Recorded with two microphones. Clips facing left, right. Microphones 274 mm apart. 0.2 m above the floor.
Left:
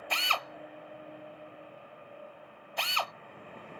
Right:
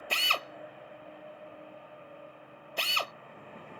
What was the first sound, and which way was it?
A drill, 35° right (ahead or behind).